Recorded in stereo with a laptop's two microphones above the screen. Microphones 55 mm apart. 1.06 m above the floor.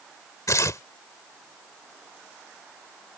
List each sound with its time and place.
0.5 s tearing paper: 75° left (ahead or behind)